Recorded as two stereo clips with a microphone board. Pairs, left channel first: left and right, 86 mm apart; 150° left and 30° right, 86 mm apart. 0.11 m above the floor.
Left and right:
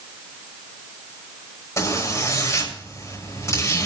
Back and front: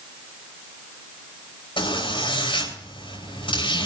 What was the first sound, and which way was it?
A zipper, 140° left.